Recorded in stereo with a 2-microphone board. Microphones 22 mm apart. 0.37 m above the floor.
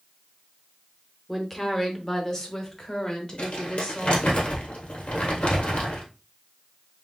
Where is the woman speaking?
5° left (ahead or behind), 1.1 m; by 4.4 s 40° left (ahead or behind), 2.5 m.